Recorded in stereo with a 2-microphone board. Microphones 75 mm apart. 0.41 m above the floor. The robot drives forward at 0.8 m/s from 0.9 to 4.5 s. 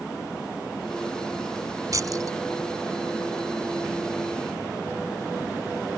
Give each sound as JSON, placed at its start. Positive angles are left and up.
{"t": 1.9, "sound": "keys jangling", "side_deg": -50}